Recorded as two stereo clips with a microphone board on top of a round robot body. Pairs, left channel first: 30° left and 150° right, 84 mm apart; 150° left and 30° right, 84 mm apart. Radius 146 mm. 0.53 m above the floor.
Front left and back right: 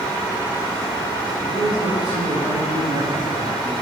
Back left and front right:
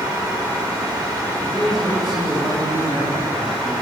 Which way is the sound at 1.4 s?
120° right.